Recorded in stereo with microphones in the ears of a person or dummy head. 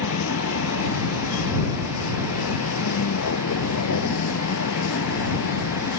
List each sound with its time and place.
0.0 s a vehicle: 70° left (ahead or behind)